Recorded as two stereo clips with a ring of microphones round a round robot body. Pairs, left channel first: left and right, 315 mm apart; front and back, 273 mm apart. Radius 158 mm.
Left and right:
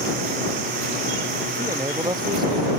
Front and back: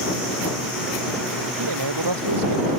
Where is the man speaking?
170° right; by 2.7 s 165° right.